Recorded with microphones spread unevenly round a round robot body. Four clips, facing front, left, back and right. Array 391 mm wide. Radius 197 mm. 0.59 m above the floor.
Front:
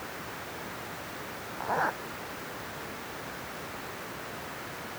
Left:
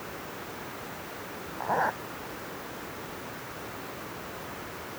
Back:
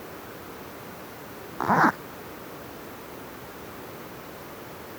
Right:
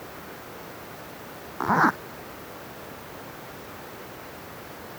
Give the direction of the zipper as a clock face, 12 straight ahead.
5 o'clock.